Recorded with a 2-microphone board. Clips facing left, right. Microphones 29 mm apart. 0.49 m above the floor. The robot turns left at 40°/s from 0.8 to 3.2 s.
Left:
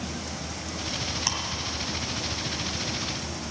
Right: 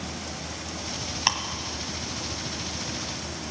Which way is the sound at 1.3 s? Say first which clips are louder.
Right 7 dB; 35° right (ahead or behind).